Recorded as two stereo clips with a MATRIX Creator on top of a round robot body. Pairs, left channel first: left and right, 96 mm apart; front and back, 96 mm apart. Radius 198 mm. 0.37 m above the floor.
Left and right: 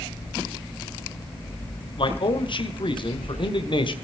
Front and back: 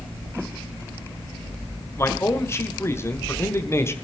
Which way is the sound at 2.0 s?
60° left.